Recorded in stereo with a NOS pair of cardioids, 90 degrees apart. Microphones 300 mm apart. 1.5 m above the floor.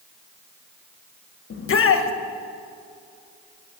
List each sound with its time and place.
1.5 s a shout: 45° left, 1.3 m